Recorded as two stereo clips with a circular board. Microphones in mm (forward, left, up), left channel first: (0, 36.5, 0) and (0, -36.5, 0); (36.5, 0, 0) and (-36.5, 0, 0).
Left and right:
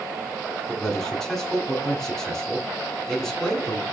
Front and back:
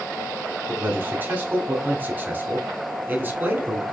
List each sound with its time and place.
0.7 s a man speaking: 165° left, 1.1 m